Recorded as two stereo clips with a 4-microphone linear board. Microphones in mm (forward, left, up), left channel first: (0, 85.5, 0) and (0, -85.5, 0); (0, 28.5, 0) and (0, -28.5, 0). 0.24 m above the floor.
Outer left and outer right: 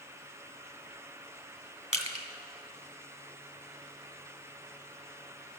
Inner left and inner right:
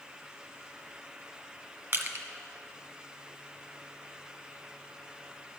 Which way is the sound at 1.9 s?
45° right (ahead or behind).